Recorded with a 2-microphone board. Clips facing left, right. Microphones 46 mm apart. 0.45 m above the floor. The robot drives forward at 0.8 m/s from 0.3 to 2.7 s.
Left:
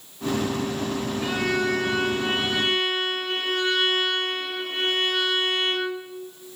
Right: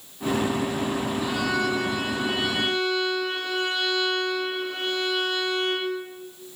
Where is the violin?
50° left (ahead or behind), 9.5 m; by 6.0 s 45° left (ahead or behind), 10 m.